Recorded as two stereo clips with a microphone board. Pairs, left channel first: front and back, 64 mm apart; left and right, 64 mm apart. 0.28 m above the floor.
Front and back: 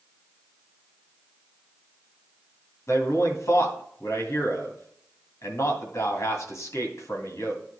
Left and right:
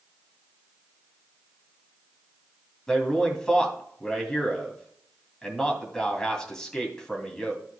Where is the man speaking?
15° left, 2.5 m.